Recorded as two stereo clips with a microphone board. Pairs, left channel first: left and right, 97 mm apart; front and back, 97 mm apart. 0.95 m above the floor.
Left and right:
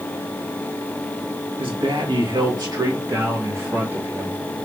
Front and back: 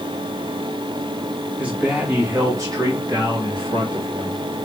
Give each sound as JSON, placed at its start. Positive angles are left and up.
{"t": 1.6, "sound": "a man speaking", "azimuth_deg": -105, "distance_m": 1.4}